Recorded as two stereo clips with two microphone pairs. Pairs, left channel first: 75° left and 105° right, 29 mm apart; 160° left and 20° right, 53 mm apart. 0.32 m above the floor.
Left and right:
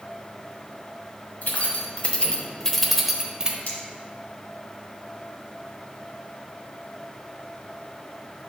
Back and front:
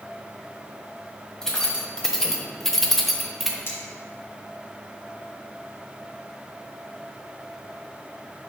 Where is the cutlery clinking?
115° left, 2 m.